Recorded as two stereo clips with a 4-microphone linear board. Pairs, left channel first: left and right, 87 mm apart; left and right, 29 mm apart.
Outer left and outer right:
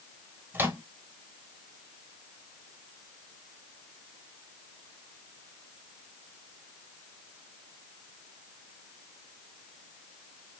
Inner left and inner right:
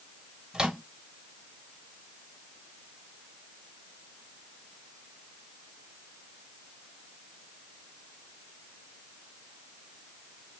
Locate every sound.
0.5 s a microwave: 25° right (ahead or behind), 1.0 m